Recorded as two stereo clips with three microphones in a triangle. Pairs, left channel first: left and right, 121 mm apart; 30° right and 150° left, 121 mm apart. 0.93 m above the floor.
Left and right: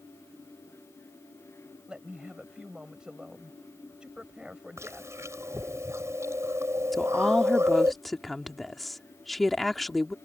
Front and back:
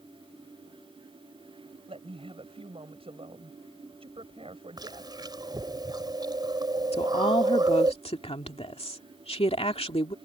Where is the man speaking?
175° right.